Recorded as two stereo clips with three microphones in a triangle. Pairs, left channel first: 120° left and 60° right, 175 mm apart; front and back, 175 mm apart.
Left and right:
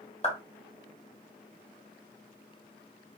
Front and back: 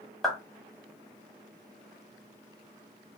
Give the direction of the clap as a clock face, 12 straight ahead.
9 o'clock.